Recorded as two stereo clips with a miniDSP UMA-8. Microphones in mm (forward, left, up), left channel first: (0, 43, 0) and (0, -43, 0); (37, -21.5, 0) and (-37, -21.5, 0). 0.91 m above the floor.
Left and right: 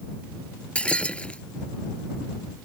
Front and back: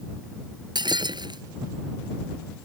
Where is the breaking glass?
165° left.